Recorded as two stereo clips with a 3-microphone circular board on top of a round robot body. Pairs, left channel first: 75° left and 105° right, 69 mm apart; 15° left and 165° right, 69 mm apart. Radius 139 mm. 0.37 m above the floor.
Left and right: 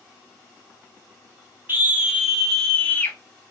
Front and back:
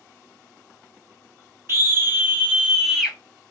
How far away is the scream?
About 1.4 m.